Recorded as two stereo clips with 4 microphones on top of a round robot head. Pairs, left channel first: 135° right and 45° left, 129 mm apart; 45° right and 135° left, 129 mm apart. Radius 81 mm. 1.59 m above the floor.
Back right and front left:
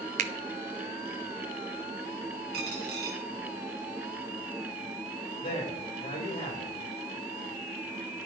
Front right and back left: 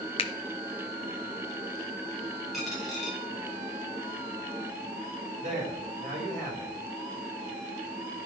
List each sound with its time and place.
0.2 s a finger snap: 5° left, 0.8 m
2.5 s a dropped coin: 45° left, 4 m
5.4 s a man speaking: 175° left, 7.5 m